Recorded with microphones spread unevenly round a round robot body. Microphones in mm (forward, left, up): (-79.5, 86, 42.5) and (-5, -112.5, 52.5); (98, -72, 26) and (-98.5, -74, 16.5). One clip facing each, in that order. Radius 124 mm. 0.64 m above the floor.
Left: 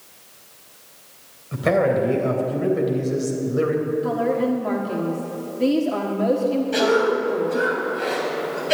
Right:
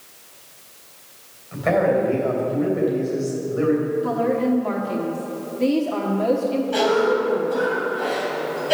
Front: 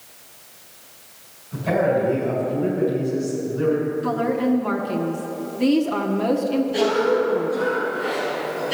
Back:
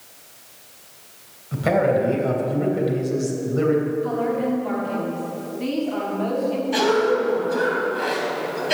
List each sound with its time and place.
1.5 s a man speaking: 155° left, 3.5 m
4.0 s a woman speaking: 30° left, 1.3 m
6.7 s a cough: 175° left, 4 m